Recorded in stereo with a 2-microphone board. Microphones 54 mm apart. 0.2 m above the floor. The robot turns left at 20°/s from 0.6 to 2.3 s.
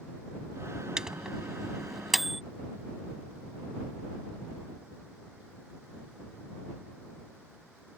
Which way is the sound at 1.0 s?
15° right (ahead or behind).